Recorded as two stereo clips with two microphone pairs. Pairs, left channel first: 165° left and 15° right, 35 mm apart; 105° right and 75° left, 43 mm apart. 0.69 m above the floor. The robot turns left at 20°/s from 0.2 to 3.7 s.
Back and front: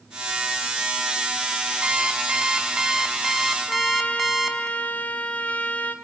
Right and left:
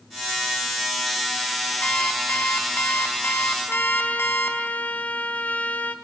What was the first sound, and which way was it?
An alarm clock, 60° right.